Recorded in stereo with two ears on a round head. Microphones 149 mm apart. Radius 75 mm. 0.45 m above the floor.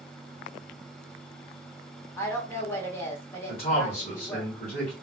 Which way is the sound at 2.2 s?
15° left (ahead or behind).